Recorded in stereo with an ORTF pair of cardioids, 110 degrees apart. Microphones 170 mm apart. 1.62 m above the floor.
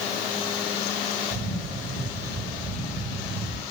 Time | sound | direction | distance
1.3 | a camera shutter | 45° right | 5 m